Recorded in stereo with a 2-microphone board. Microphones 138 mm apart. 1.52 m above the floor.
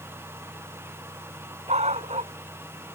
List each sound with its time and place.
1.7 s a dog barking: 50° right (ahead or behind)